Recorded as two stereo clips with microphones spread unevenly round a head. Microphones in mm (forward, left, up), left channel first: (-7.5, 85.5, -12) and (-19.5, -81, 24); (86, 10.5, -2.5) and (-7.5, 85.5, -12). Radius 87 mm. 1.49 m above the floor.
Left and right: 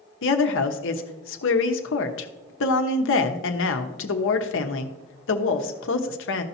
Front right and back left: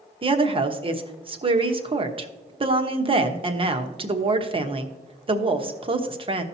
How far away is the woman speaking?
About 1.1 m.